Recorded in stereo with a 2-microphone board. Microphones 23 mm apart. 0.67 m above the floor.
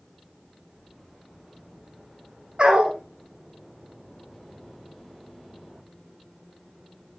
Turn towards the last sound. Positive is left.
turn(degrees=-45)  # may be behind; listen again after turning